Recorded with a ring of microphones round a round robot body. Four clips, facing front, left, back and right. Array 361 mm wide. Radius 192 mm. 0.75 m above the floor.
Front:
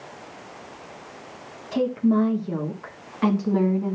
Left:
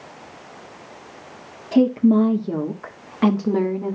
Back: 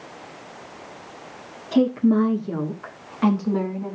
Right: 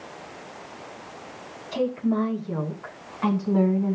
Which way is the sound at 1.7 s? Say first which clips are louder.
Left 9 dB, back 3 dB; 125° left.